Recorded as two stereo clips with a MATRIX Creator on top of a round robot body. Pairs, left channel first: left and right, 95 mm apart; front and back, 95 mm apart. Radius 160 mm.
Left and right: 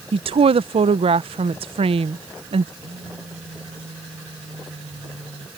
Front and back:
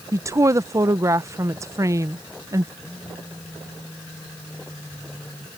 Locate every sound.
0.1 s a woman speaking: 120° right
2.8 s a phone buzzing: 75° right